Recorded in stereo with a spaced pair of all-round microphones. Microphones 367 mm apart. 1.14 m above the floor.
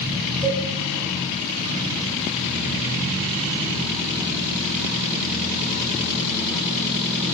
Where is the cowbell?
85° left, 2.0 m.